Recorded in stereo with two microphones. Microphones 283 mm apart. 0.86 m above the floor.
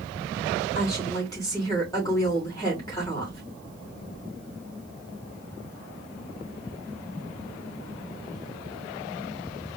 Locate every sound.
0.8 s a woman speaking: 10° left (ahead or behind), 3 m